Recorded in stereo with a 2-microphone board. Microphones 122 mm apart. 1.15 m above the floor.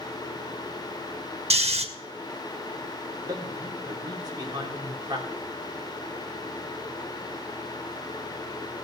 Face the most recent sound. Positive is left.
turn(degrees=-30)  # may be behind; listen again after turning